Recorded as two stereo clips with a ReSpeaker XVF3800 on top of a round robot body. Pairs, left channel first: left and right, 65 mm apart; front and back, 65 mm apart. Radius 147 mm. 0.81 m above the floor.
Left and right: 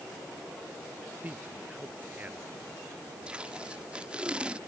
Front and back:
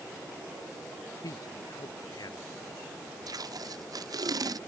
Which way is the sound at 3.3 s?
165° right.